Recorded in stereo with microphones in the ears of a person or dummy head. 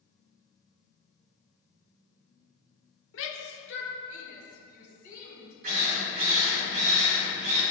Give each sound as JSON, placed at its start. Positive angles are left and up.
{"t": 3.1, "sound": "a shout", "side_deg": 60, "distance_m": 0.8}
{"t": 5.6, "sound": "a drill", "side_deg": -45, "distance_m": 1.7}